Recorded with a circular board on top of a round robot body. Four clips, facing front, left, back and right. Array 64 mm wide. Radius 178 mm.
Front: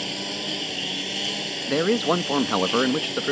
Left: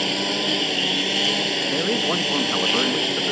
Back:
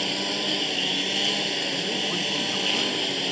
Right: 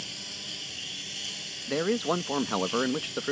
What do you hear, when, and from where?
0.0 s a lawn mower: 105° left
1.7 s a man speaking: 5° left